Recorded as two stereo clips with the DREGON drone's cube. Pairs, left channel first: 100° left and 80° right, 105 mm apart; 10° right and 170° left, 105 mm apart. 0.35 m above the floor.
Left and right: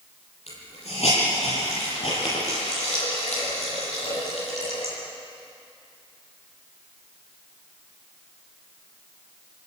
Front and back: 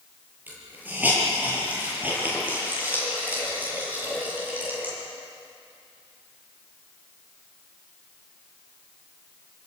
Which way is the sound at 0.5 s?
95° left.